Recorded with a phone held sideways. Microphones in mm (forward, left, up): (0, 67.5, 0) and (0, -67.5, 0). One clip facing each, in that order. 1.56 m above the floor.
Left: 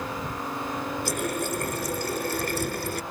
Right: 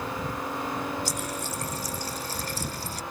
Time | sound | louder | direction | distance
1.1 | a running tap | left 5 dB | 55° left (ahead or behind) | ?